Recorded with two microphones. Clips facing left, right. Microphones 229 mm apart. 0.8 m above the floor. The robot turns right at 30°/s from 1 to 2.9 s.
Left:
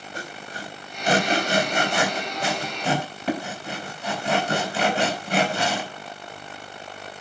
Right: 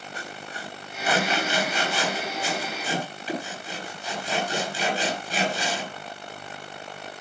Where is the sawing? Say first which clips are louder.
Left 3 dB; 45° left (ahead or behind), 4.5 m; by 5.9 s 75° left (ahead or behind), 4.5 m.